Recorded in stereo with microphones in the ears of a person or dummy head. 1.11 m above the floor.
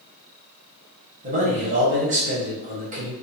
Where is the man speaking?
35° right (ahead or behind), 0.8 m.